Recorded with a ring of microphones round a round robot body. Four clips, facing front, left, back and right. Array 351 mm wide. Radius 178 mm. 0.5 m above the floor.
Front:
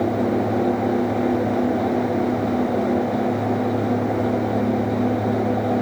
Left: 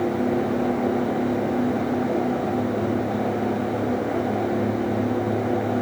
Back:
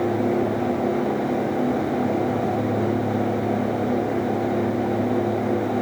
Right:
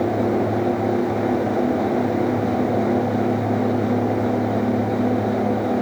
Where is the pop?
No pop in this recording.